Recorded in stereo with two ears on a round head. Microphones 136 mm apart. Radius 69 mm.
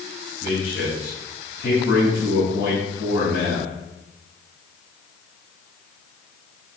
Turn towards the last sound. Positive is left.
turn(degrees=85)